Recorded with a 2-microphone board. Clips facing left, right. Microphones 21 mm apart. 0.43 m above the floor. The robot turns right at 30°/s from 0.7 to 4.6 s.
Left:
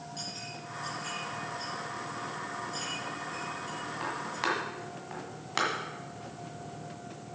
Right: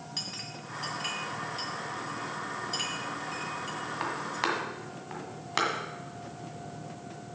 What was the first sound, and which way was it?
A clink, 55° right (ahead or behind).